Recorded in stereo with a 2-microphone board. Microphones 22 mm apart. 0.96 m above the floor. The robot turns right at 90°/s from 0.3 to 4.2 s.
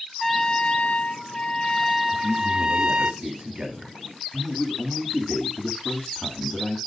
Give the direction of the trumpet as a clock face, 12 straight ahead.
11 o'clock.